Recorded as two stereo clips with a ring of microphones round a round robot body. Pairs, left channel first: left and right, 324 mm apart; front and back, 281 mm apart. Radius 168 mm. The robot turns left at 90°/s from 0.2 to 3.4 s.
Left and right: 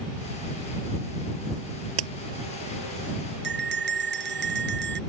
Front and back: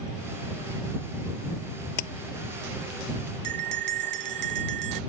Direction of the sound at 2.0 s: 40° right.